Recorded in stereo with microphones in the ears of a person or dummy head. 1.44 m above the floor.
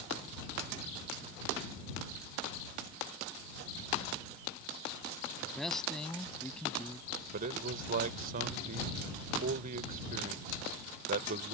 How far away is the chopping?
No chopping in this recording.